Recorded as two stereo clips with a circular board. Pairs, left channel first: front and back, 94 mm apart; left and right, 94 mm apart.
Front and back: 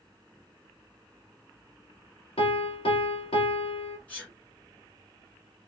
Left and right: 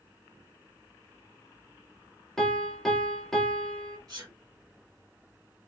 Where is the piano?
5° left, 1.1 m.